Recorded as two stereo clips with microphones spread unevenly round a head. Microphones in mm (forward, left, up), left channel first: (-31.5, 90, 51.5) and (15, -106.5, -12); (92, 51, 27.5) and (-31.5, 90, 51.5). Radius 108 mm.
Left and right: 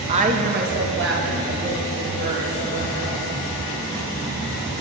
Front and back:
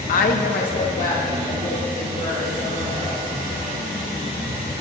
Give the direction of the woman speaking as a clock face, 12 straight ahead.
12 o'clock.